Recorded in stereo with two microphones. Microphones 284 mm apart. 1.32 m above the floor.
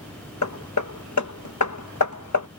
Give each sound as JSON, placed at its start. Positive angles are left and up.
{"t": 0.4, "sound": "hammering", "side_deg": 70}